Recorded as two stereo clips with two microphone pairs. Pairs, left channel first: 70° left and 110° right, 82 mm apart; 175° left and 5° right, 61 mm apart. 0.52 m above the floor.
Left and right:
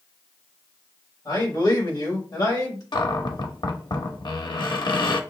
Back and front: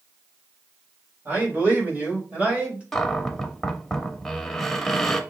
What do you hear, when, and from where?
1.2 s a man speaking: 50° left, 3 m; by 2.8 s 60° left, 2.5 m
2.9 s a cupboard door: 90° left, 0.8 m